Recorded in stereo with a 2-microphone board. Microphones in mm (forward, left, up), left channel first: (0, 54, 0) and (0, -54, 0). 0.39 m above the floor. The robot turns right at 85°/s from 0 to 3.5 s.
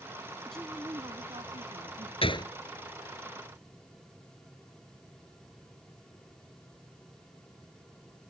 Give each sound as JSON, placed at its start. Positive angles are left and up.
{"t": 0.5, "sound": "a woman speaking", "azimuth_deg": 170}
{"t": 2.2, "sound": "a gunshot", "side_deg": 60}